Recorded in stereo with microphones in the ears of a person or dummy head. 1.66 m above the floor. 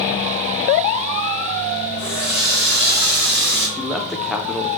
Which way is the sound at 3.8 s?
Centre (ahead or behind).